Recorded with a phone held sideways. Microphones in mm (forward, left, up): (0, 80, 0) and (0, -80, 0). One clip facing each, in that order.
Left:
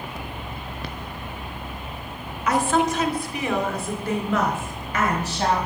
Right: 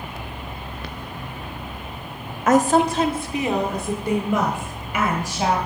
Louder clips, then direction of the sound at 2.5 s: Right 5 dB; 50° right (ahead or behind).